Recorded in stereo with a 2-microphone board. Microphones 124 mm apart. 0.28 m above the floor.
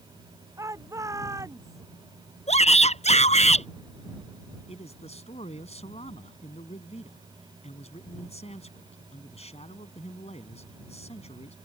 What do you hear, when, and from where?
0.6 s a shout: 25° right (ahead or behind)
2.5 s a shout: 65° left (ahead or behind)
4.7 s a man speaking: 60° left (ahead or behind)